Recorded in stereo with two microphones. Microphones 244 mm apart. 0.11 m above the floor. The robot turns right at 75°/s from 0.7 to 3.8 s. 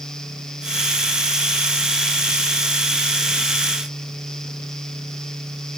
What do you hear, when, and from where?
Only background noise.